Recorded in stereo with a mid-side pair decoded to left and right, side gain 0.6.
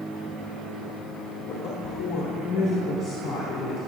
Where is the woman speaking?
55° left, 3 m.